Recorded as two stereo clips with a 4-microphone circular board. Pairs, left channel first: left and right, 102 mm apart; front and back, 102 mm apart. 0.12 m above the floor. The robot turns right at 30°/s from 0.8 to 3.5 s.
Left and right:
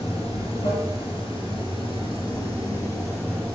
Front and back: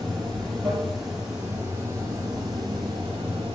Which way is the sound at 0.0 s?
90° left.